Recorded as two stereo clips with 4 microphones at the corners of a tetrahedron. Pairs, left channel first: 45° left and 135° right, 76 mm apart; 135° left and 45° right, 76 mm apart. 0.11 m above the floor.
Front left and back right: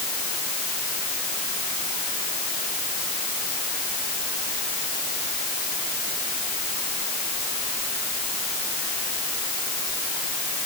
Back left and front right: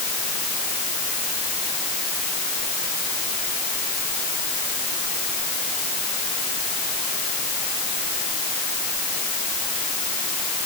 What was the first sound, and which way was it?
Only background noise.